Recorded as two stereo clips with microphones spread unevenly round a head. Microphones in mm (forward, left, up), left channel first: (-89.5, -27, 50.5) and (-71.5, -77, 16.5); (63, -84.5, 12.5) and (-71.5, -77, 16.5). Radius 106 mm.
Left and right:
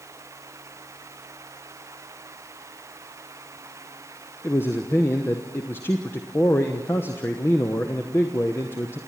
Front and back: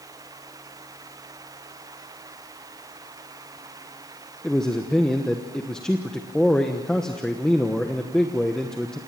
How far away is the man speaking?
About 1.0 m.